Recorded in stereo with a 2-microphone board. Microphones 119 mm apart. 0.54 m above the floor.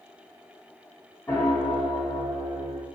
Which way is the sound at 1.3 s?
20° left (ahead or behind).